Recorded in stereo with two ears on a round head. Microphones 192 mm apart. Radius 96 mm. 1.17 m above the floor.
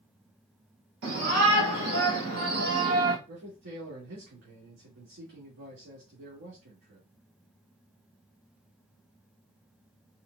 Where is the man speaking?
60° right (ahead or behind), 1.9 m.